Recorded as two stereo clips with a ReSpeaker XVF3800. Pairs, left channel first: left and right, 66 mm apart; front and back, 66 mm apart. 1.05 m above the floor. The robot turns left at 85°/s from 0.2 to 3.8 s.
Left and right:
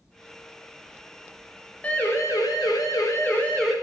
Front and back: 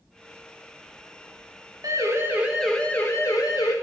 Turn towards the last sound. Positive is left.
turn(degrees=-10)